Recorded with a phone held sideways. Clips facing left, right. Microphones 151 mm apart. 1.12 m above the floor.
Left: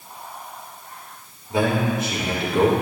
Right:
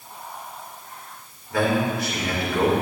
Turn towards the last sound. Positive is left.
turn(degrees=20)  # may be behind; listen again after turning